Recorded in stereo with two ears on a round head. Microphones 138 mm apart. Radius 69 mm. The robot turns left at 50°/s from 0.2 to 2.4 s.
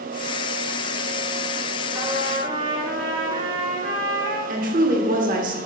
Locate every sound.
1.9 s a trumpet: 20° right (ahead or behind), 1.4 m; by 4.4 s 40° right (ahead or behind), 1.4 m
4.5 s a woman speaking: 55° right (ahead or behind), 1.3 m